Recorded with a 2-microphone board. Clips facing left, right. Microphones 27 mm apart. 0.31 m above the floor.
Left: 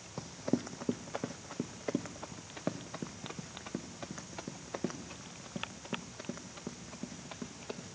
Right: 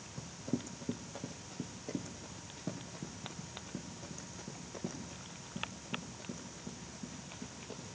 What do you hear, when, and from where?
0.2 s running footsteps: 50° left (ahead or behind), 0.8 m; by 8.0 s 80° left, 5 m